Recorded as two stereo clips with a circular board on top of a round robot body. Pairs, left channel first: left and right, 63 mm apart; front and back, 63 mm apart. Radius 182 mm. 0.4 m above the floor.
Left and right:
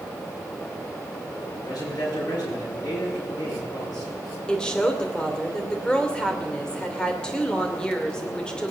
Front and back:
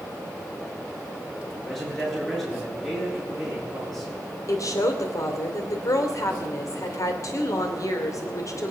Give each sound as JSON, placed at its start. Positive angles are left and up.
{"t": 1.6, "sound": "a man speaking", "azimuth_deg": 80, "distance_m": 9.5}
{"t": 4.5, "sound": "a woman speaking", "azimuth_deg": 15, "distance_m": 2.5}